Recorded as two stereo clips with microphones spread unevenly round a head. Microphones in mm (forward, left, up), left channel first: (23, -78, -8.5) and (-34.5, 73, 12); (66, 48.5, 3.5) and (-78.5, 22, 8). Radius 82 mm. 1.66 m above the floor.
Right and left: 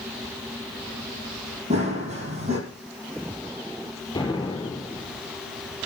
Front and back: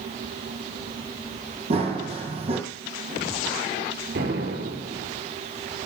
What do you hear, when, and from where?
1.7 s running footsteps: 150° left, 3 m
4.2 s an explosion: 135° right, 4 m